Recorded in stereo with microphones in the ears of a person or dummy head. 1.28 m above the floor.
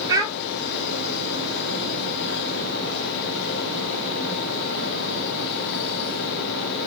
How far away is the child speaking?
About 0.8 m.